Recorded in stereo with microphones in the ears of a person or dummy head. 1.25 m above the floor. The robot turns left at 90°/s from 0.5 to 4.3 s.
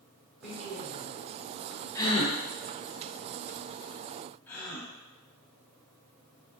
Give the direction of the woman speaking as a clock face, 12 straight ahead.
6 o'clock.